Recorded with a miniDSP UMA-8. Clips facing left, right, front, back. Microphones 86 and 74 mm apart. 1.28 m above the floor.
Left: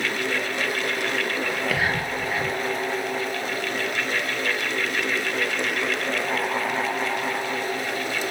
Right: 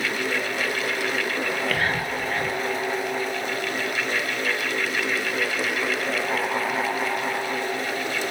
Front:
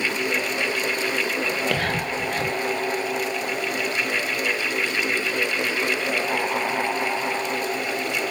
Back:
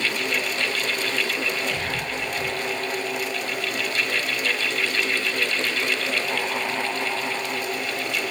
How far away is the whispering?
About 1.1 m.